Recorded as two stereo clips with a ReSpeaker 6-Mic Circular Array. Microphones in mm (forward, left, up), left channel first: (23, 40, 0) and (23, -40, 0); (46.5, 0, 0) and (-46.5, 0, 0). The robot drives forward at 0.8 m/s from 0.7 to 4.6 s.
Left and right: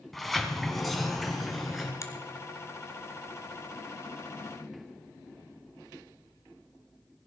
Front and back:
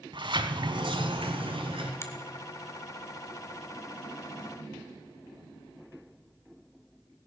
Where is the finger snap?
55° left, 1.3 m.